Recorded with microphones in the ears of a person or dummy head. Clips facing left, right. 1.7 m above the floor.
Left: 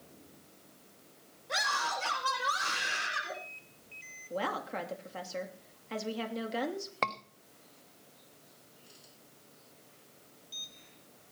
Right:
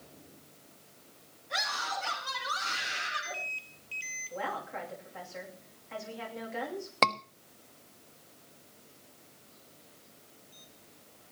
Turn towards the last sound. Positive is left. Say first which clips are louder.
# right 7 dB
turn(degrees=-55)  # may be behind; listen again after turning